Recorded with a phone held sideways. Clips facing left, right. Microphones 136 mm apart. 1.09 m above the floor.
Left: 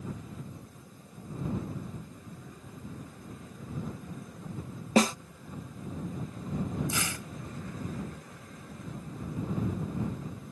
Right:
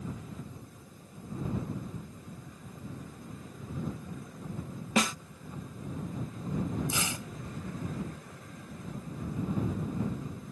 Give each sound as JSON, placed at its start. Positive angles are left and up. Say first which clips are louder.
{"t": 5.0, "sound": "a snare drum", "louder": "left 5 dB", "side_deg": 35}
{"t": 6.9, "sound": "tearing paper", "louder": "even", "side_deg": -20}